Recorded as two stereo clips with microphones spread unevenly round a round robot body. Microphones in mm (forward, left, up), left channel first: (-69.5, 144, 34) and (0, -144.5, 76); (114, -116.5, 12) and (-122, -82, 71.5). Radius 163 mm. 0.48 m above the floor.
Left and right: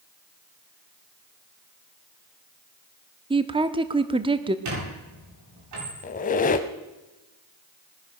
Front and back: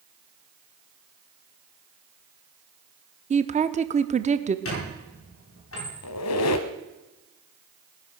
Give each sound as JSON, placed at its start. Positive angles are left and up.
{"t": 3.3, "sound": "a woman speaking", "azimuth_deg": -140, "distance_m": 0.8}
{"t": 4.7, "sound": "a squeak", "azimuth_deg": -35, "distance_m": 8.5}
{"t": 6.0, "sound": "a squeak", "azimuth_deg": 35, "distance_m": 0.7}